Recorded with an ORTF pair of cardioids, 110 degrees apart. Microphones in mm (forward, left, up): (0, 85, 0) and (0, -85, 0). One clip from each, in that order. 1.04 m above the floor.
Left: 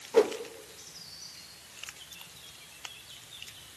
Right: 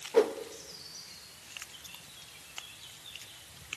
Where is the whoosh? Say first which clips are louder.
Left 2 dB; 10° left, 0.6 m.